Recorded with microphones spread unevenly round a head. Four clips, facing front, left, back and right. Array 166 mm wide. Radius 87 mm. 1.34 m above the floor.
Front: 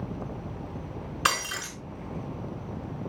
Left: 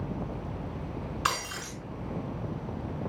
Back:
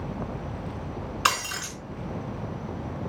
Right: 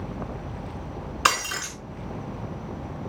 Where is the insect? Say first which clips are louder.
Right 1 dB, back 3 dB; 115° right, 7.5 m.